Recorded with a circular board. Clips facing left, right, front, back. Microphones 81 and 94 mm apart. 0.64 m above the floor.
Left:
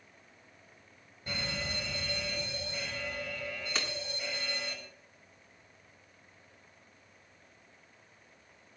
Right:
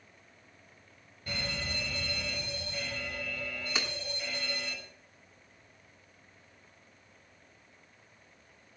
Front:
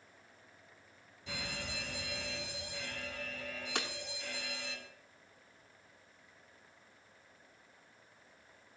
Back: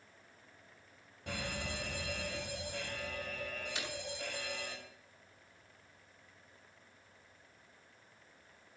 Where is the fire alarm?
160° left, 6 m.